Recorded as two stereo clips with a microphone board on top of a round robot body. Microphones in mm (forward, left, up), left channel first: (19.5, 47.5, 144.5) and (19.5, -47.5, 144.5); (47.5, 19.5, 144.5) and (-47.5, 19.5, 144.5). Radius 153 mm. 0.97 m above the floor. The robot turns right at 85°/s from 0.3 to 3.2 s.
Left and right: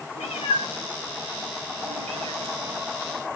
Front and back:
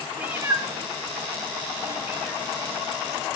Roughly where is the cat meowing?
Left.